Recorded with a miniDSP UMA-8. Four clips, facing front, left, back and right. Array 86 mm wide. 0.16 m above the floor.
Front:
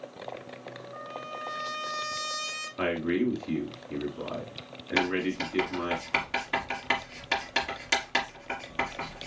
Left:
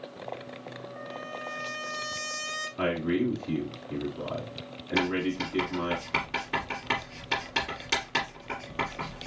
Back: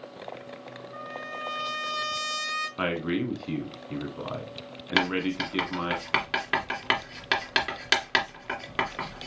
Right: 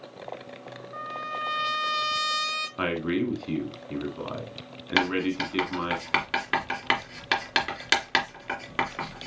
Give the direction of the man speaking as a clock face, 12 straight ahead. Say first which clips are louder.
Even, front 2 dB; 4 o'clock.